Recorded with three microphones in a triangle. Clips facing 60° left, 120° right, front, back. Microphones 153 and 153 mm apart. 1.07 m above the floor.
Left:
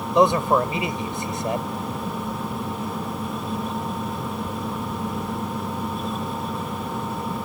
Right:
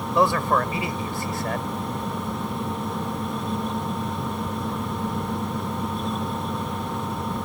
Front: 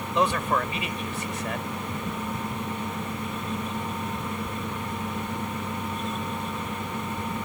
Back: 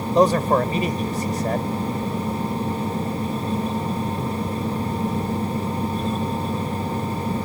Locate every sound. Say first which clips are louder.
0.1 s a man speaking: left 3 dB, back 8 dB; 130° left